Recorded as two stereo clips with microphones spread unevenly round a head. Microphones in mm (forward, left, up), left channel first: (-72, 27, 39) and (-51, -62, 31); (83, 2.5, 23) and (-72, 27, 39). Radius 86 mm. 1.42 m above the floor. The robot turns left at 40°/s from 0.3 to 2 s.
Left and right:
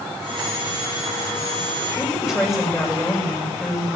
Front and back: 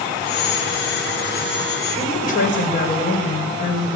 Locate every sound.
2.0 s a woman speaking: 30° left, 6 m